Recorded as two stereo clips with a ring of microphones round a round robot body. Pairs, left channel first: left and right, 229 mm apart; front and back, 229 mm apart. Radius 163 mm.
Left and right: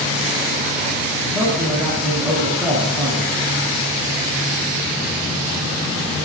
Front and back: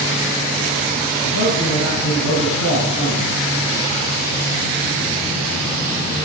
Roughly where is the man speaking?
Ahead.